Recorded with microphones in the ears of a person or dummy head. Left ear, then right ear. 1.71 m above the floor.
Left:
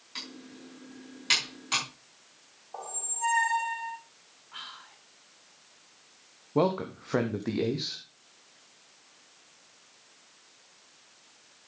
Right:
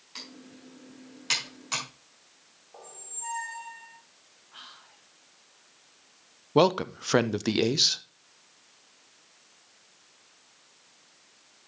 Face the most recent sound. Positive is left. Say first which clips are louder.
# right 5 dB
turn(degrees=-85)